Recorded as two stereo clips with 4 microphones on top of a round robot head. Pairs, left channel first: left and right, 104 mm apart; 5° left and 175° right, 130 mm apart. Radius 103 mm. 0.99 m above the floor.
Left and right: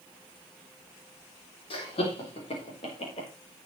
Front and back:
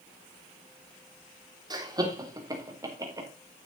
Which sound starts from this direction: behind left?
Laughter, at 1.7 s.